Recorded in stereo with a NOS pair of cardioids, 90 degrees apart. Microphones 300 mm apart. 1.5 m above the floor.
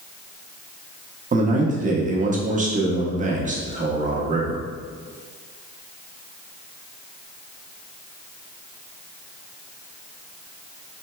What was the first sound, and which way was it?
A man speaking, 25° right.